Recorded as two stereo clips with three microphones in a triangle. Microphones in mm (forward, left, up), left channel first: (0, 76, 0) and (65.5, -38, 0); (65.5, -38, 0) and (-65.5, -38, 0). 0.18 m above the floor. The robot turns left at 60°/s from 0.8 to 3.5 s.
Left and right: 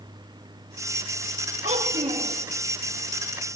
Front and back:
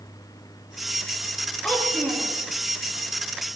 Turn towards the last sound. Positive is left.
turn(degrees=170)